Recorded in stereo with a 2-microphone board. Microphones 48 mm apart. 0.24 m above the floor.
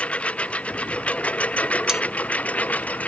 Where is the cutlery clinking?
10° right (ahead or behind).